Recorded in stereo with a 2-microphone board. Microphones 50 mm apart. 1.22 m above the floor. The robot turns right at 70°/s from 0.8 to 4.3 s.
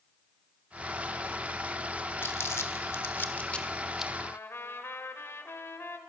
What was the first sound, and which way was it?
Crumpling, 55° left (ahead or behind).